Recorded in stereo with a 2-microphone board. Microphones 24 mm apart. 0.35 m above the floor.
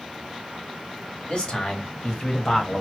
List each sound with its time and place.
1.3 s a man speaking: 55° left (ahead or behind), 1.5 m; by 2.8 s 30° left (ahead or behind), 1.2 m